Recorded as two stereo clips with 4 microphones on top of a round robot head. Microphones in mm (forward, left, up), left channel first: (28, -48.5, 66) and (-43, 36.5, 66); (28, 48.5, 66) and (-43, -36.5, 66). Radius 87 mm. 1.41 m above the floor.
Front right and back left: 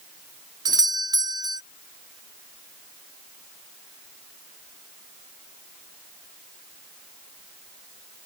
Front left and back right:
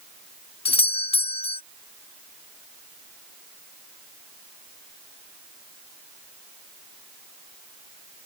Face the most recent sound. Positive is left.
turn(degrees=75)